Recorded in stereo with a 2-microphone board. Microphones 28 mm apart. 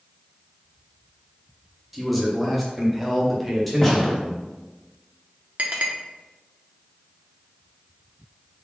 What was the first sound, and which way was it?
A man speaking, 5° left (ahead or behind).